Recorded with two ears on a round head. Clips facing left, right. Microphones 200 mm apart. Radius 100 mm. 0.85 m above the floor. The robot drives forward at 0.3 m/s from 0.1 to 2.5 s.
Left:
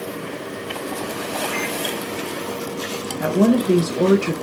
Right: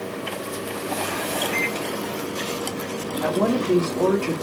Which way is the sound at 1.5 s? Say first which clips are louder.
Left 1 dB; 10° right (ahead or behind).